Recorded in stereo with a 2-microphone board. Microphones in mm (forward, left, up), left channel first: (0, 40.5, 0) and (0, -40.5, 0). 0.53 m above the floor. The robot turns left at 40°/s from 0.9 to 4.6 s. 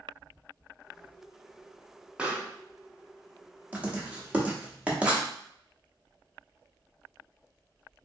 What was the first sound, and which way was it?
A pop, 10° right (ahead or behind).